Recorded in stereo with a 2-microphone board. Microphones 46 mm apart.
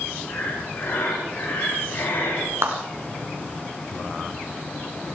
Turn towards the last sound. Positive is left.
turn(degrees=-75)  # may be behind; listen again after turning